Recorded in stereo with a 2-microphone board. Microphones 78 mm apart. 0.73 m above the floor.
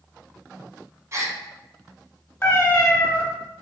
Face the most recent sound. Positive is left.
turn(degrees=30)  # may be behind; listen again after turning